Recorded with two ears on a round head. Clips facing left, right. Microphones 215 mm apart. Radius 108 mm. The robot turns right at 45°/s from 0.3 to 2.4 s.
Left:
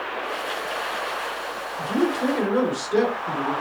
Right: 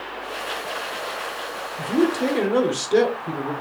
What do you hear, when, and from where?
1.8 s a man speaking: 50° right (ahead or behind), 1.2 m; by 3.5 s 45° right (ahead or behind), 1.2 m